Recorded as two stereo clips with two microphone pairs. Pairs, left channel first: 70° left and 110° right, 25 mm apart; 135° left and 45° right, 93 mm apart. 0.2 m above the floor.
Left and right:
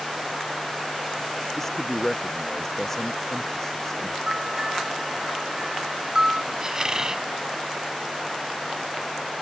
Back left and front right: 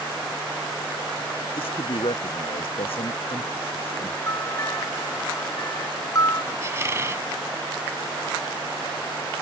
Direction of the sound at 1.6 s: 145° left.